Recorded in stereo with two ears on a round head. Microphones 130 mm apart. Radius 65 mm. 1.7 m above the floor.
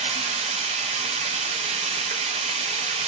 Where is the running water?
40° right (ahead or behind), 0.7 m.